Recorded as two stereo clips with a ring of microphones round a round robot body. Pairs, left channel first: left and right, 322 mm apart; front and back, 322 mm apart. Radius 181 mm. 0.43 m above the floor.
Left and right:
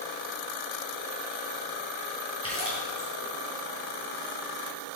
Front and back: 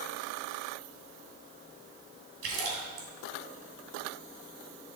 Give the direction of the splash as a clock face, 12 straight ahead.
6 o'clock.